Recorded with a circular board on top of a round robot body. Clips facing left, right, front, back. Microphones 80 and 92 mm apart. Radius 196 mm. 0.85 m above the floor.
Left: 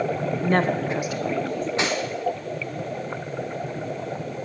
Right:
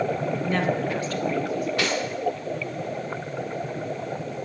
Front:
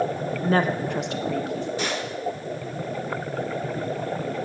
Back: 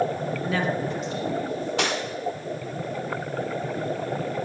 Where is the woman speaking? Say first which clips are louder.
Left 4 dB, front 5 dB; 50° left, 1.3 m; by 1.7 s 10° right, 1.9 m.